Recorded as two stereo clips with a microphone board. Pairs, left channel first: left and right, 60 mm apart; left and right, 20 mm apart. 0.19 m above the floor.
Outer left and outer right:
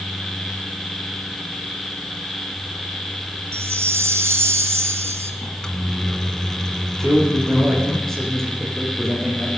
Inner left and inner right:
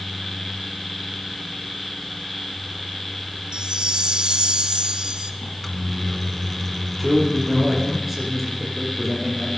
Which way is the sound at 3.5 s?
45° right (ahead or behind).